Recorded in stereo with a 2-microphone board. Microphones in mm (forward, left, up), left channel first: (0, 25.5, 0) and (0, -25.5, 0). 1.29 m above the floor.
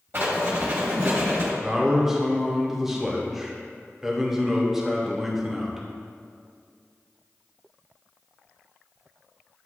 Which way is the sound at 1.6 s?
10° right (ahead or behind).